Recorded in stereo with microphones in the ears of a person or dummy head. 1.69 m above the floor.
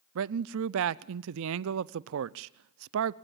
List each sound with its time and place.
0.1 s a man speaking: 75° right (ahead or behind), 0.6 m